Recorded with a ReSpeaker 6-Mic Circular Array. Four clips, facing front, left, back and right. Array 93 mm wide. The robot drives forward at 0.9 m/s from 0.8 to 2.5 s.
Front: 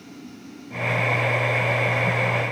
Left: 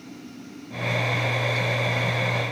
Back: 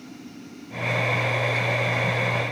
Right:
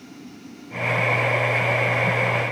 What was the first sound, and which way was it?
Only background noise.